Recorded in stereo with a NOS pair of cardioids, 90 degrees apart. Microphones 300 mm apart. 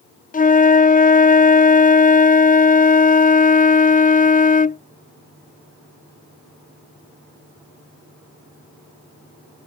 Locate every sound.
0.3 s a flute: 25° left